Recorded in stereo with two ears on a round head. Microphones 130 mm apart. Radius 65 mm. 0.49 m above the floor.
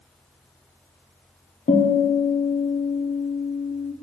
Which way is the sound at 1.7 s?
45° left (ahead or behind).